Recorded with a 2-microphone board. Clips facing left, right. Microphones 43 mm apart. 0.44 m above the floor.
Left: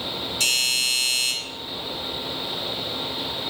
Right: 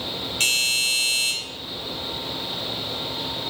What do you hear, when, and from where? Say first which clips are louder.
0.4 s a doorbell: right 1 dB; 45° right (ahead or behind), 2.5 m